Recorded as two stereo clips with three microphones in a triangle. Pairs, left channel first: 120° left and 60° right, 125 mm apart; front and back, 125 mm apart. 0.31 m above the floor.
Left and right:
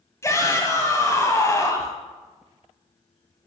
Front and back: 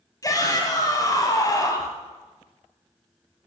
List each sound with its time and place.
0.2 s a shout: 55° left, 1.6 m